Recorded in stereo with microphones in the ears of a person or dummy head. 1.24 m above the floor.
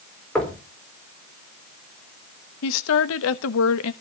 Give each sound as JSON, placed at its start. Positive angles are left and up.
{"t": 0.3, "sound": "knocking", "side_deg": 5, "distance_m": 4.0}
{"t": 2.6, "sound": "a woman speaking", "side_deg": 75, "distance_m": 1.1}